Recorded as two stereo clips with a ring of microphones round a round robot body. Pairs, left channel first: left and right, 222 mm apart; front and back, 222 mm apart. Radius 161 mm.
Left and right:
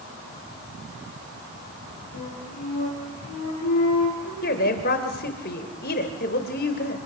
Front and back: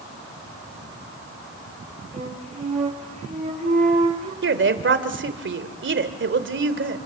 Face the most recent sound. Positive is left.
turn(degrees=145)